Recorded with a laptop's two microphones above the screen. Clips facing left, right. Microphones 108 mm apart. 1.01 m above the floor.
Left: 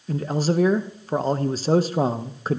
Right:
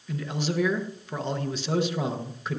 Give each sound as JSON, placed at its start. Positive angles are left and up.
{"t": 0.1, "sound": "a man speaking", "side_deg": 40, "distance_m": 0.6}